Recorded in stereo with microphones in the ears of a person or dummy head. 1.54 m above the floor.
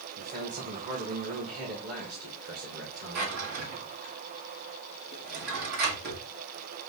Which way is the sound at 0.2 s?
30° right (ahead or behind).